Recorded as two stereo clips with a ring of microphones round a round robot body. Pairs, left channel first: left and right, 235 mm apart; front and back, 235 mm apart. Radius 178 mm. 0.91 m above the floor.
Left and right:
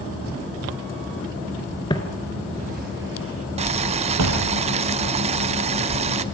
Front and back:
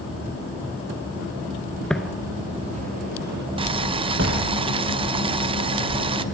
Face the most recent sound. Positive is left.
turn(degrees=-130)